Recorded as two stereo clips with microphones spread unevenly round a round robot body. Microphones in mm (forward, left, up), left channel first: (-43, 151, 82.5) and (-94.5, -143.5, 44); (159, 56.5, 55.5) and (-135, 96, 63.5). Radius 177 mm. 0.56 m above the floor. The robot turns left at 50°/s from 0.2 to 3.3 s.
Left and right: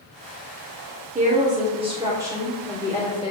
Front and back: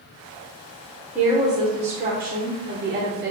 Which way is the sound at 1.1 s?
105° right.